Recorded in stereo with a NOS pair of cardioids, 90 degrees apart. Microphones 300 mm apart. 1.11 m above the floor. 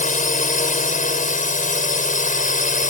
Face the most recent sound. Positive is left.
turn(degrees=30)